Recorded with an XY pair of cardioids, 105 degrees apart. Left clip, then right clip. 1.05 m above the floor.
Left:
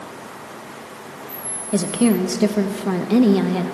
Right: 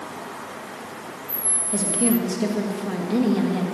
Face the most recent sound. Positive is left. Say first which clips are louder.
# left 5 dB
turn(degrees=45)